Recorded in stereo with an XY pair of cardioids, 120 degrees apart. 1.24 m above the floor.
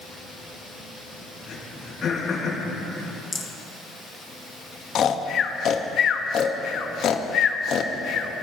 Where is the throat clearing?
45° left, 4.5 m.